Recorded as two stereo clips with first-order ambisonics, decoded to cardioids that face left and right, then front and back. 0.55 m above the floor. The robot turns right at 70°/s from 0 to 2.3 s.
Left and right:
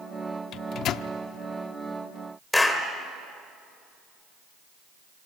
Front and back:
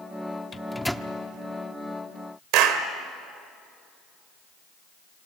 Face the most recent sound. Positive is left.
turn(degrees=170)